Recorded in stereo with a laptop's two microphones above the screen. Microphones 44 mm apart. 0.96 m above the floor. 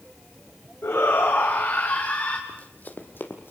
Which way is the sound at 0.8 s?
65° left (ahead or behind).